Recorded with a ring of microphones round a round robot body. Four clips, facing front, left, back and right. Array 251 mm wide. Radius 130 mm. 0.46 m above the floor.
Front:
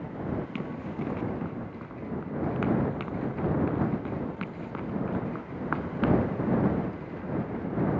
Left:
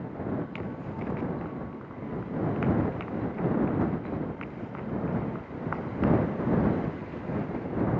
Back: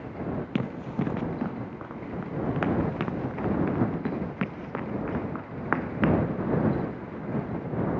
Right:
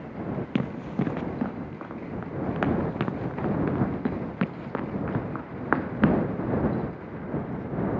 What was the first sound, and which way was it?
Running footsteps, 120° right.